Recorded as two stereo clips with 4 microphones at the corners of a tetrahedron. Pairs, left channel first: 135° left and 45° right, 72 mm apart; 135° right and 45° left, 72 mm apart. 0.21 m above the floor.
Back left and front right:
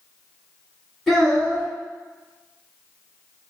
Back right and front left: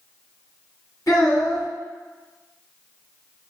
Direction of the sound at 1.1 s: 130° right.